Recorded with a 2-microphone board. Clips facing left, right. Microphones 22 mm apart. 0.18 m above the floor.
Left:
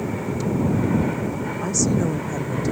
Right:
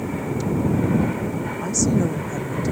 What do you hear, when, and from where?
1.6 s a woman speaking: 10° left (ahead or behind)